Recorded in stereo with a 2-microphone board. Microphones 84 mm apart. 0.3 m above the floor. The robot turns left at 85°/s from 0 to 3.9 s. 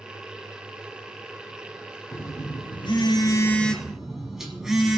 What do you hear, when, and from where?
2.1 s a phone buzzing: 145° left, 1.3 m; by 5.0 s 5° right, 1.3 m